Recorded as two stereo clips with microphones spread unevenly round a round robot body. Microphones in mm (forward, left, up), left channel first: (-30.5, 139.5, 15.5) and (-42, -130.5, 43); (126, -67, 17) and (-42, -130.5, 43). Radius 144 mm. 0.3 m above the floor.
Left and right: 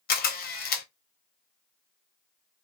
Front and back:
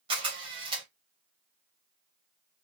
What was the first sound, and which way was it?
A camera shutter, 135° left.